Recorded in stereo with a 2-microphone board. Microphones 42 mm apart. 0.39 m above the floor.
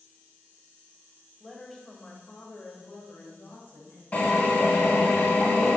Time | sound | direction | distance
1.4 | a woman speaking | centre (ahead or behind) | 1.6 m
4.1 | a drill | 35° left (ahead or behind) | 3 m